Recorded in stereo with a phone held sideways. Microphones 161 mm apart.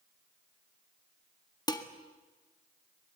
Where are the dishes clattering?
25° left (ahead or behind), 1.6 m.